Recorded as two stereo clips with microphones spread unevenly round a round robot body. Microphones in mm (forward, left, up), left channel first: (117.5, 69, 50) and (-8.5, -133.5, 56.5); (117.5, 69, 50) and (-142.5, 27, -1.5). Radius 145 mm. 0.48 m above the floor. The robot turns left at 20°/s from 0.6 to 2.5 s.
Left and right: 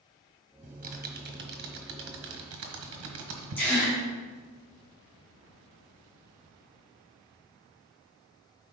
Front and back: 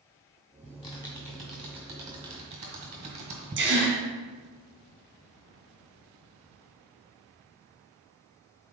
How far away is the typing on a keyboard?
About 1.4 m.